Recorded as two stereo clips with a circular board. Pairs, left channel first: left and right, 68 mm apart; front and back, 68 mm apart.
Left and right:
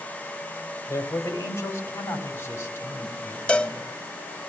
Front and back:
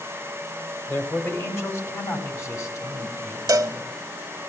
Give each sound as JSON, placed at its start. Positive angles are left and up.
{"t": 0.9, "sound": "a man speaking", "azimuth_deg": 50, "distance_m": 3.5}
{"t": 3.5, "sound": "a cowbell", "azimuth_deg": 160, "distance_m": 0.6}